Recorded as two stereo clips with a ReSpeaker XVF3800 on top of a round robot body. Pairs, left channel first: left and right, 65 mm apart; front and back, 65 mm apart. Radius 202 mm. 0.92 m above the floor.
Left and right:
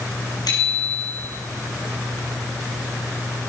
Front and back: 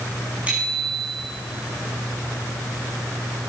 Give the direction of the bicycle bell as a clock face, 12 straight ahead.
8 o'clock.